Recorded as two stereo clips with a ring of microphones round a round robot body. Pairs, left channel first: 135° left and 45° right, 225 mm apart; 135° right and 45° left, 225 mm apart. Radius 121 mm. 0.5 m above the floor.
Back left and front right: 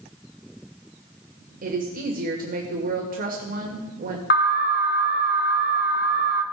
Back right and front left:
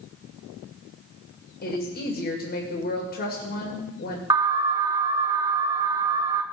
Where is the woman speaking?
95° right, 2.5 m.